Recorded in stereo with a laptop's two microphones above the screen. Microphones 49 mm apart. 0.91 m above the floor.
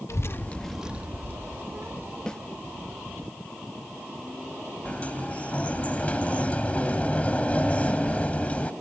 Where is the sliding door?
25° left (ahead or behind).